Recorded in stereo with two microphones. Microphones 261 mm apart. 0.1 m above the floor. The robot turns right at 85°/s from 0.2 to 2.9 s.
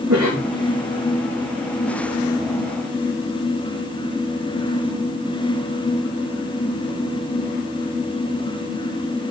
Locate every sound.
0.1 s a cough: 60° right (ahead or behind), 4.5 m; by 0.5 s 35° right (ahead or behind), 4.5 m